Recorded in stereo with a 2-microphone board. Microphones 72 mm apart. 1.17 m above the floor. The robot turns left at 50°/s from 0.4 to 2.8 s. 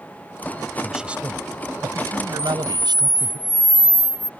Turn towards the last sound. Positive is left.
turn(degrees=5)  # may be behind; listen again after turning